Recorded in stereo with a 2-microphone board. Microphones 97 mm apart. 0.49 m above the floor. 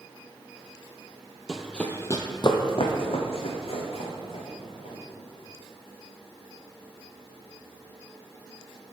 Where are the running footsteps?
10° right (ahead or behind), 0.5 m; by 5.0 s 75° left (ahead or behind), 2 m.